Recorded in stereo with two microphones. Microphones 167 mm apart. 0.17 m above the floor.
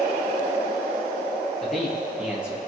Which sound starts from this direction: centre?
A man speaking, at 1.6 s.